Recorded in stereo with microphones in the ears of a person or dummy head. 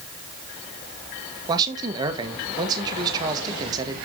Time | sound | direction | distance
1.5 | a man speaking | 25° right (ahead or behind) | 1.6 m